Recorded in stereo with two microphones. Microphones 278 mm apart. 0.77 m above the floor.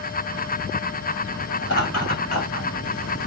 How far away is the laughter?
About 2.5 m.